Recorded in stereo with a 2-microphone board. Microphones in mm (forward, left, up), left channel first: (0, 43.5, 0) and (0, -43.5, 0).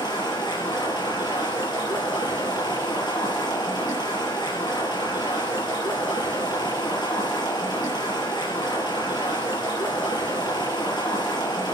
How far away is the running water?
About 5.5 m.